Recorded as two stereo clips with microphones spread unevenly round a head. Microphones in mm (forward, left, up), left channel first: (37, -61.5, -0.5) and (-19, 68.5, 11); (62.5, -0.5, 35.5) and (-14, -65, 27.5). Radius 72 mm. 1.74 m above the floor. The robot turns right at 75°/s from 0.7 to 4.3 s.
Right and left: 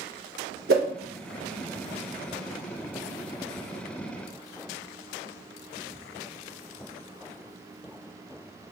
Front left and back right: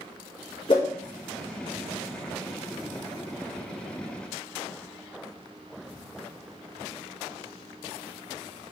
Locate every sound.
0.7 s a whoosh: 95° left, 1.0 m; by 0.9 s 105° left, 1.0 m